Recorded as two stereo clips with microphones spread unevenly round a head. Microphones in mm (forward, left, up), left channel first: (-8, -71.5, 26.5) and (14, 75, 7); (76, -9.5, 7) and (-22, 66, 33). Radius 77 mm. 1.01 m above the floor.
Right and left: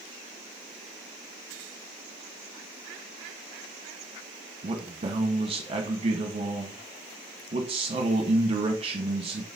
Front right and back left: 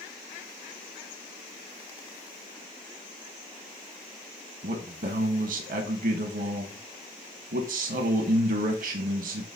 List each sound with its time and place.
4.6 s a man speaking: 130° left, 1.2 m